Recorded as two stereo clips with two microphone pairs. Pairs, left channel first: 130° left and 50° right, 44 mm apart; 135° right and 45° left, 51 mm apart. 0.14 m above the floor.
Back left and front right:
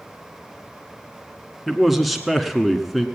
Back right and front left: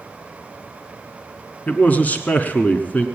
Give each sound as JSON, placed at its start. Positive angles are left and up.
{"t": 1.7, "sound": "a man speaking", "azimuth_deg": -140, "distance_m": 1.1}